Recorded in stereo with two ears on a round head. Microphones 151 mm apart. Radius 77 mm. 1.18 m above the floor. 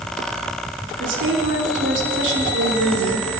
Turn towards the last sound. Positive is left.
turn(degrees=-75)  # may be behind; listen again after turning